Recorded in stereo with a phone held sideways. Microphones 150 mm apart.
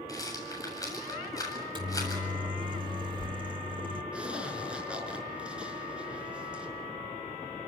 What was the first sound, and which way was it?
A rattle, 25° left (ahead or behind).